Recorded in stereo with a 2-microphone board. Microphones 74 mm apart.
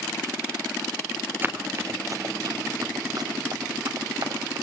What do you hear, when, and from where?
1.4 s running footsteps: 25° right (ahead or behind), 1.5 m; by 4.6 s 70° right (ahead or behind), 5 m